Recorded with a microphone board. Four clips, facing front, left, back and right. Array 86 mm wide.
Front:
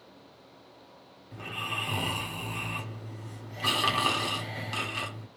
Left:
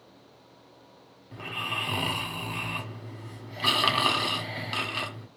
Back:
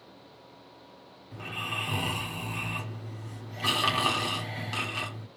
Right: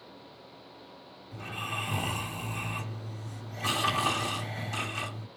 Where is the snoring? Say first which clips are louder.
Left 2 dB, even; 90° left, 1.4 m.